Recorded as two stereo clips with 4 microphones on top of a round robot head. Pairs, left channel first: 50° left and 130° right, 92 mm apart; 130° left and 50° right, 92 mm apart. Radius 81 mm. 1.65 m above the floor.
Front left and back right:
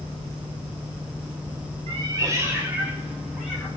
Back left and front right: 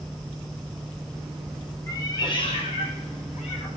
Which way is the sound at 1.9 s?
165° right.